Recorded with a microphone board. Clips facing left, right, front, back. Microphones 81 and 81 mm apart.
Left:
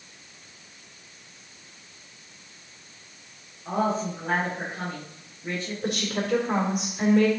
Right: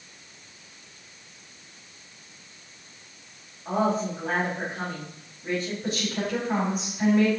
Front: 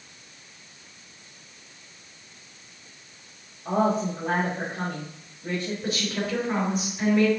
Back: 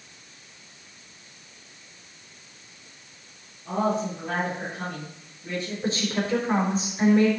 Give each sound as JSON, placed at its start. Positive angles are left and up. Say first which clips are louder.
{"t": 3.6, "sound": "a woman speaking", "louder": "right 1 dB, front 2 dB", "azimuth_deg": -5, "distance_m": 4.5}
{"t": 5.8, "sound": "a woman speaking", "louder": "left 1 dB, back 2 dB", "azimuth_deg": 120, "distance_m": 3.5}